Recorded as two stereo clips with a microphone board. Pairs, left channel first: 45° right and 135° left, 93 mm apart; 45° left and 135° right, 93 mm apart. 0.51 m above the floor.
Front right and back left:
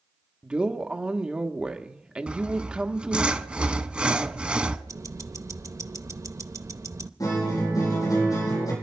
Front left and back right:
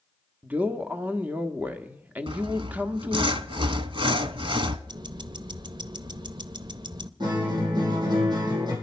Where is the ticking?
170° right, 0.6 m.